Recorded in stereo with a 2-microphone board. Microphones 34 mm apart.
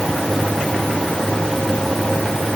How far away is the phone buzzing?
I don't hear a phone buzzing.